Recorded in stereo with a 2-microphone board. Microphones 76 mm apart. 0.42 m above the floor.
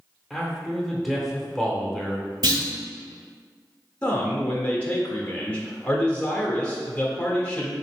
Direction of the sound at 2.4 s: 60° right (ahead or behind).